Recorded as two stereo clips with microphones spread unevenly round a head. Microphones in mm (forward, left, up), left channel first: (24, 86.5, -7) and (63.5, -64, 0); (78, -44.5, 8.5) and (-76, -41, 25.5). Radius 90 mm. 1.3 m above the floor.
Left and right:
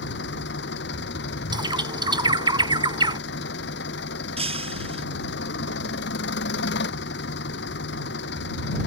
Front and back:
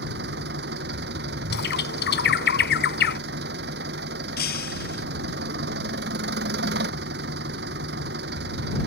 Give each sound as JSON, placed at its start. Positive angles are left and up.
{"t": 0.0, "sound": "an engine running", "azimuth_deg": 140}
{"t": 1.5, "sound": "a bird", "azimuth_deg": -15}
{"t": 4.4, "sound": "breaking glass", "azimuth_deg": -25}